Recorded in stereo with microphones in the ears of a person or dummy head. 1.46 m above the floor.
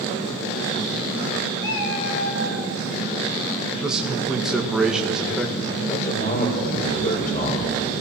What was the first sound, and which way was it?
A cat meowing, 60° left (ahead or behind).